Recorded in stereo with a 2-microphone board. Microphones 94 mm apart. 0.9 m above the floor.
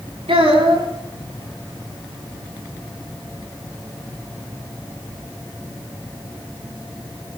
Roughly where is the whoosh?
I don't hear a whoosh.